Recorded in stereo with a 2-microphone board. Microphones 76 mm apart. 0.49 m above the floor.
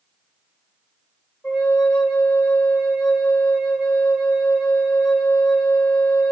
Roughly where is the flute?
Centre.